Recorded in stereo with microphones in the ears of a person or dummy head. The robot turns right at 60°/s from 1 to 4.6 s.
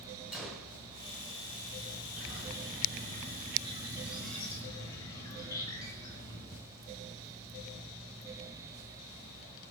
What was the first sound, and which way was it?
A gunshot, 5° right (ahead or behind).